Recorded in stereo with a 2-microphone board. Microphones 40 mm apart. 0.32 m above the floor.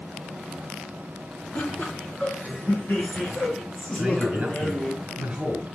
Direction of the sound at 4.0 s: 30° right (ahead or behind).